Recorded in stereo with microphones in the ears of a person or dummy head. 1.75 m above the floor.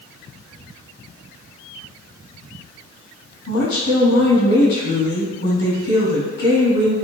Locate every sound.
3.5 s a woman speaking: 55° left (ahead or behind), 2.5 m